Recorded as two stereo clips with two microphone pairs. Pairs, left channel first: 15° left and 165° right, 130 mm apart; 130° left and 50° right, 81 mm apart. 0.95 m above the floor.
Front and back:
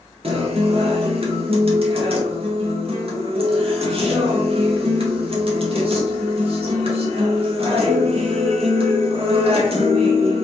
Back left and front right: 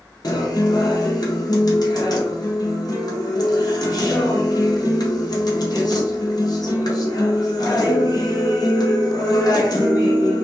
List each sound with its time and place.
0.2 s a guitar: 160° left, 0.7 m